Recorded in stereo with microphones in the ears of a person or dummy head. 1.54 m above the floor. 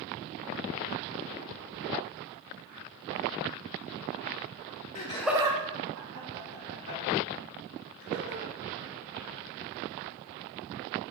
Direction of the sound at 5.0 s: 35° left (ahead or behind).